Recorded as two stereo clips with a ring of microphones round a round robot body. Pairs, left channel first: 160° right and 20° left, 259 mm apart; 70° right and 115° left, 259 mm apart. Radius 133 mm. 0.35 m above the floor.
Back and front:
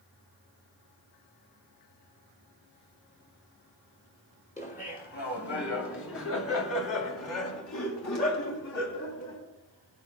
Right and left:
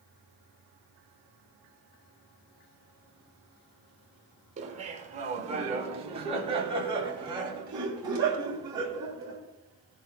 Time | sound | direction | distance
4.6 | laughter | 155° left | 1.7 m